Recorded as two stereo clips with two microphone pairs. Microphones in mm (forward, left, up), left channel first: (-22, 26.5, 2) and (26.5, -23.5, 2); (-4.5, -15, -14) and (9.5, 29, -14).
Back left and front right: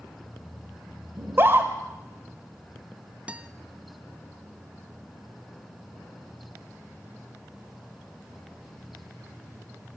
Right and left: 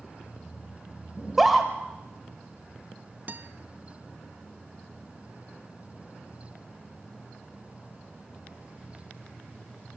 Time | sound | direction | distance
1.2 | a scream | 15° right | 1.1 m
3.3 | a guitar | 25° left | 0.7 m